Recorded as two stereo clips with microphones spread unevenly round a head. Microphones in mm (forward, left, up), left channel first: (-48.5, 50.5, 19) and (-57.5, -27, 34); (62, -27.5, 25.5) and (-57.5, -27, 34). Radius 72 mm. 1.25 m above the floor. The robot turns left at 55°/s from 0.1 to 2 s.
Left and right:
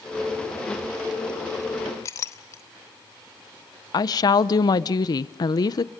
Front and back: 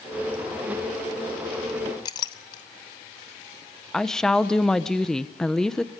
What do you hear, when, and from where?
2.0 s a clink: 35° left, 0.6 m
3.9 s a woman speaking: 85° left, 0.9 m